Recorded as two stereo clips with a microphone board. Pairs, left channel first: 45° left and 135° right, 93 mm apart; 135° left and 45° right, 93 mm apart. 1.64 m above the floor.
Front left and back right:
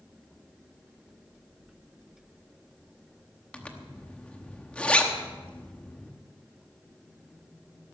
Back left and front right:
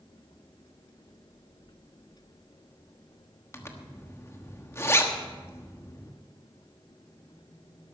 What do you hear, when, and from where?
3.5 s a zipper: 110° left, 1.2 m